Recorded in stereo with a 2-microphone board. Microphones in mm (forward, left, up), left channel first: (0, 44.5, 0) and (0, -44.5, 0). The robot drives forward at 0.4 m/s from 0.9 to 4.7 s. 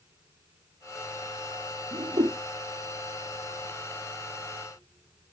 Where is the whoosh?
85° right, 3 m.